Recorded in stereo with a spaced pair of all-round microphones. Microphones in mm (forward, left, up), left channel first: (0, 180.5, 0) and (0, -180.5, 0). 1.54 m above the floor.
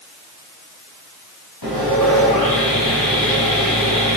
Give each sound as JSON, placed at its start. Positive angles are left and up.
{"t": 1.6, "sound": "sawing", "side_deg": 75, "distance_m": 8.5}